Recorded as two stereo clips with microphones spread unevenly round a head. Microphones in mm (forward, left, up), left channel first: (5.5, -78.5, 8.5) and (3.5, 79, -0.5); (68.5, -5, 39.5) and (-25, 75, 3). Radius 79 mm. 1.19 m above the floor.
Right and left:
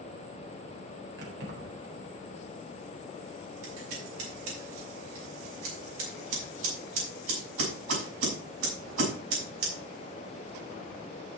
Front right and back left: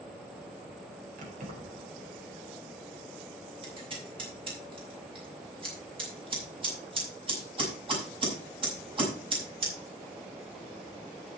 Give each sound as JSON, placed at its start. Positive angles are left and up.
{"t": 1.2, "sound": "keys jangling", "azimuth_deg": 115, "distance_m": 4.0}
{"t": 3.6, "sound": "scissors", "azimuth_deg": 90, "distance_m": 6.0}